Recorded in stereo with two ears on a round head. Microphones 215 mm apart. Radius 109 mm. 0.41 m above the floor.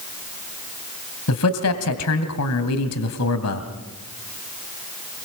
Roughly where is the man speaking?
Left.